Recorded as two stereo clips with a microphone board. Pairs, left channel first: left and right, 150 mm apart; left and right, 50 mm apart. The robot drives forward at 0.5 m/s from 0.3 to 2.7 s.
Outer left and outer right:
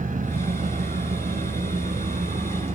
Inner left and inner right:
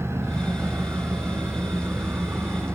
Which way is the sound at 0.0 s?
60° right (ahead or behind).